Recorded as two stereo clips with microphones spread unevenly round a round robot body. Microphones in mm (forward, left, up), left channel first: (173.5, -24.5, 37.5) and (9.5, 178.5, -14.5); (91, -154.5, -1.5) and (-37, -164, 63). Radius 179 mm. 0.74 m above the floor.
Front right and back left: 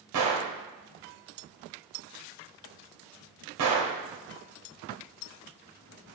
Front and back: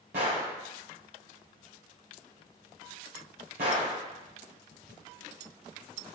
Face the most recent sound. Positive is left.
turn(degrees=140)